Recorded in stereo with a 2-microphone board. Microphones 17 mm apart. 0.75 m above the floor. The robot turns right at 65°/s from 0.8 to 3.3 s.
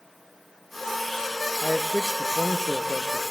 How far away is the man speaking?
About 0.6 m.